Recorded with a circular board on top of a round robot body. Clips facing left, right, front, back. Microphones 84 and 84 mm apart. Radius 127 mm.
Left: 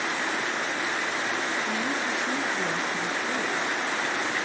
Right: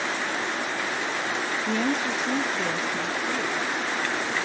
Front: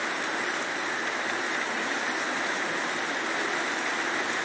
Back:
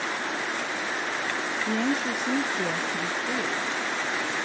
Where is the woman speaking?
140° right, 0.7 m; by 3.7 s 175° left, 1.5 m.